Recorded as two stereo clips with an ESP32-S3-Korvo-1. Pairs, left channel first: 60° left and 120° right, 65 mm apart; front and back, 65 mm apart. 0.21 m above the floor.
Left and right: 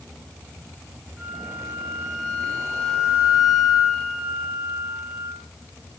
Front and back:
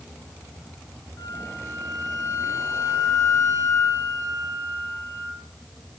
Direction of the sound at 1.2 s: 40° right.